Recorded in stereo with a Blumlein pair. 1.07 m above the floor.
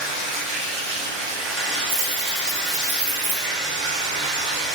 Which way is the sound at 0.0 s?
30° right.